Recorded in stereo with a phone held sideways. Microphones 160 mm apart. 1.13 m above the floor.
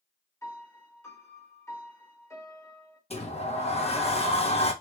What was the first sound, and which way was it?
A piano, 20° left (ahead or behind).